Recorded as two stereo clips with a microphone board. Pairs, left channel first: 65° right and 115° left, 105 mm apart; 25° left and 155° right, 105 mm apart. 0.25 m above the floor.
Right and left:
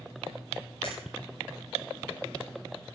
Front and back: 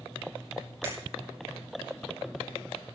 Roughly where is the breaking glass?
Right.